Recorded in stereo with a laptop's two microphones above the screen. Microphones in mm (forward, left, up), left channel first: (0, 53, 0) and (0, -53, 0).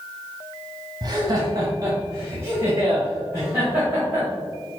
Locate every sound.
1.0 s laughter: 40° right (ahead or behind), 0.8 m; by 4.3 s 15° right (ahead or behind), 2 m